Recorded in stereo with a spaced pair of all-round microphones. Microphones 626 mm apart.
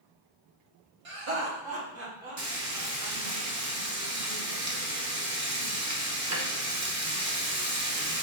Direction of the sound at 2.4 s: 30° right (ahead or behind).